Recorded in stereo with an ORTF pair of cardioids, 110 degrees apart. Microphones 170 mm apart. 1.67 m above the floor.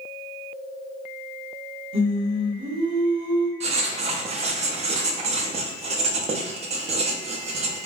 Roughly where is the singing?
Ahead right.